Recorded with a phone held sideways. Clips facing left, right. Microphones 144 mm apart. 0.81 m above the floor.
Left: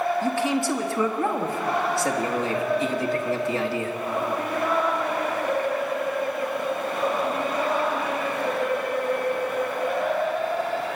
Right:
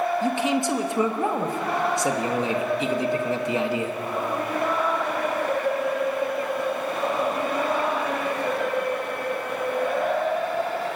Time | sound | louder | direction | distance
0.2 | a man speaking | right 1 dB | 20° right (ahead or behind) | 1.1 m